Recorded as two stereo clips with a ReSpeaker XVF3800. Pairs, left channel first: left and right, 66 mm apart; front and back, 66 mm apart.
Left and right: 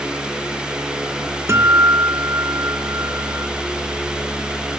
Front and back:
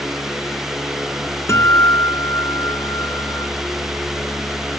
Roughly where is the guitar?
Ahead right.